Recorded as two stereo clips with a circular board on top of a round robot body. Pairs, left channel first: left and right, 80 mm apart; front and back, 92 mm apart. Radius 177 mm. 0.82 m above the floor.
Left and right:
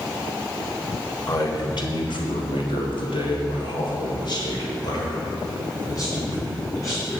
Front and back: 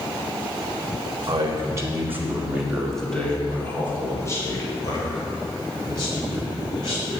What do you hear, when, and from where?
1.3 s a man speaking: 130° left, 2.5 m; by 7.2 s 35° left, 6 m